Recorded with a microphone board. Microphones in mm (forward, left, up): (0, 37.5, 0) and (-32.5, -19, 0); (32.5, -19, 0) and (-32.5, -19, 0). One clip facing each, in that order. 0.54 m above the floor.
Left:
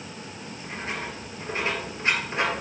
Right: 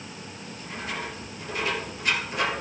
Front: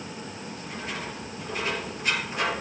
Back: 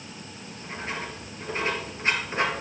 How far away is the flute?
No flute in this recording.